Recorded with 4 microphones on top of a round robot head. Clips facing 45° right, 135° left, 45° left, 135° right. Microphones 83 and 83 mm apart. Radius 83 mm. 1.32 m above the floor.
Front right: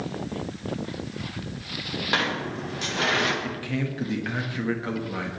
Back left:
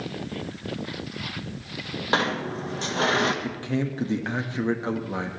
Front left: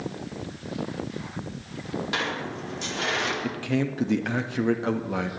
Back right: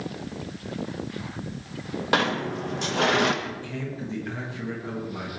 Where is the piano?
No piano in this recording.